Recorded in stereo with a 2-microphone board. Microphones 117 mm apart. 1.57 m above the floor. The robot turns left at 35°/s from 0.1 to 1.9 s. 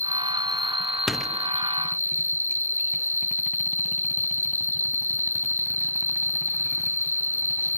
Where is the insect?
25° right; by 7.8 s 90° right.